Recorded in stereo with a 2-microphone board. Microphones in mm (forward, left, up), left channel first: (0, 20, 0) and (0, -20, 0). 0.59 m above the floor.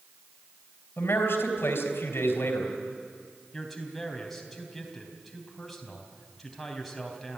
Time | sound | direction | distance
1.0 | a man speaking | 70° left (ahead or behind) | 3.5 m
3.5 | a man speaking | 5° left (ahead or behind) | 3.5 m